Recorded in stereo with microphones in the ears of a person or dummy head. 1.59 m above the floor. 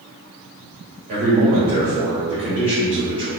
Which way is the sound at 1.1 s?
50° right (ahead or behind).